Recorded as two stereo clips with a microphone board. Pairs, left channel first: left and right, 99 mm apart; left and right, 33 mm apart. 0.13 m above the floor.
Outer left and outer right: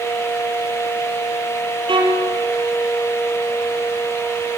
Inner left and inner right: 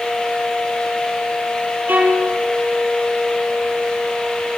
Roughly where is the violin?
Right.